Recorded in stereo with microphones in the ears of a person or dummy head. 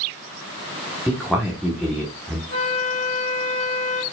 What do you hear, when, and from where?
1.1 s a man speaking: 5° right (ahead or behind), 1.0 m
2.5 s a flute: 40° left (ahead or behind), 2.5 m